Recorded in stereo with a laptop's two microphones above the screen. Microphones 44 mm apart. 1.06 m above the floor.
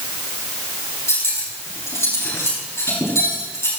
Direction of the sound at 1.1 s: 85° left.